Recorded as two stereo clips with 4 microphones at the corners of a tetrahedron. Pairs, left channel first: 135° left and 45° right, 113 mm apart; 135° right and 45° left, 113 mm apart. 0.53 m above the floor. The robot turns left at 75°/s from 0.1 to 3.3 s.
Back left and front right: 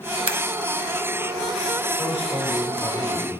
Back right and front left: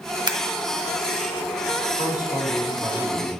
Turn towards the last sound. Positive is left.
turn(degrees=100)